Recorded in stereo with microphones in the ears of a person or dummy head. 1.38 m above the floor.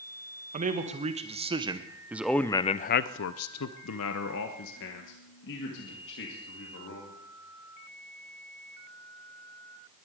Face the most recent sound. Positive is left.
turn(degrees=55)  # may be behind; listen again after turning